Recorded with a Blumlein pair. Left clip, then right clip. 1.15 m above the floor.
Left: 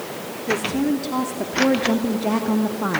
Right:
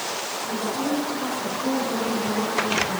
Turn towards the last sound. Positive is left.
turn(degrees=45)